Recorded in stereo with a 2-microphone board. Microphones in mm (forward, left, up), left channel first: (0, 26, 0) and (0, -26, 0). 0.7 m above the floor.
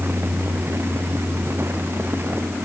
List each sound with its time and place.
Only background noise.